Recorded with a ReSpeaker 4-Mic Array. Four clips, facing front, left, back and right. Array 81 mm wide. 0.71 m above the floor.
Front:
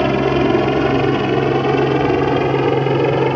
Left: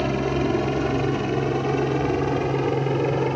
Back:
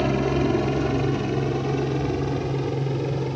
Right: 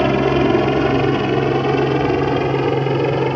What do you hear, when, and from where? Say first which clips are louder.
0.0 s a helicopter: right 8 dB, front 7 dB; 45° right; by 3.4 s 20° right